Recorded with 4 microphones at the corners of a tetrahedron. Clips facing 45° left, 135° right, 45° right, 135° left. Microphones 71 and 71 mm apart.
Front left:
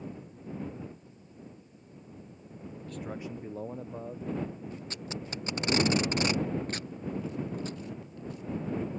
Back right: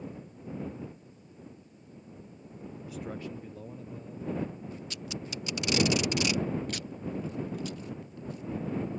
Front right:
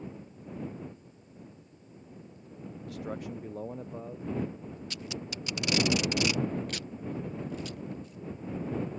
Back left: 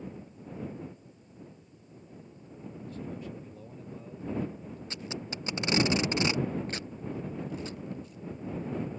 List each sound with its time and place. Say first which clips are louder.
2.9 s a man speaking: even, front right 3 dB; 55° right; by 4.8 s 20° left
4.9 s tape being pulled: front left 1 dB, back left 2 dB; 80° left